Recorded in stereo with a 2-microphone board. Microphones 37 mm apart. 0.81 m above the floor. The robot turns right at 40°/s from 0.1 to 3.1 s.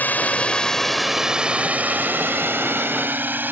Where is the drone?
50° left (ahead or behind); by 3.5 s 60° right (ahead or behind).